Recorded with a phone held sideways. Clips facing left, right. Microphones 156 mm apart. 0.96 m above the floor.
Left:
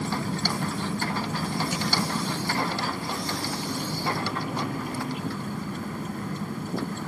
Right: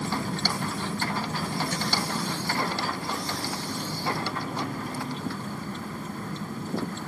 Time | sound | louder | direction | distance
0.0 | a vehicle | left 1 dB | 5° left (ahead or behind) | ?